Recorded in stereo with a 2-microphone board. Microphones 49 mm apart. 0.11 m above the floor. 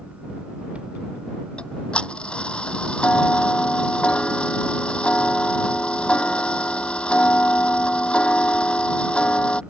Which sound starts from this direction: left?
Ticking, at 1.6 s.